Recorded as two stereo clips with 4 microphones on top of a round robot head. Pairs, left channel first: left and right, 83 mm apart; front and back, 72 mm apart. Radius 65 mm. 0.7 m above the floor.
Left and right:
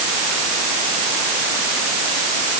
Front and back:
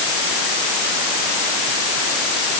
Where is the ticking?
No ticking in this recording.